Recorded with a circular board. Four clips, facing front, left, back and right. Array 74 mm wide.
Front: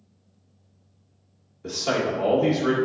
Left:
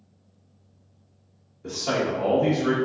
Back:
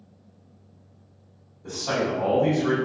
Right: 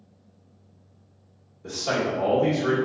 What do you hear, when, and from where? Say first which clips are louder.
1.6 s a man speaking: even, front 1 dB; 5° left, 1.2 m